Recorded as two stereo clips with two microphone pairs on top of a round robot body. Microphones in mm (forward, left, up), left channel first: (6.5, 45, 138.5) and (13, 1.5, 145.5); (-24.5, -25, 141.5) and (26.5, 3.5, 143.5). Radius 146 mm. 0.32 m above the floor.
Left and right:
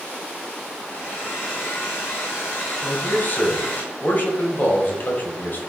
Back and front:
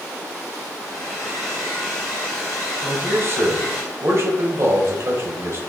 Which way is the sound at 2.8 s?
70° left.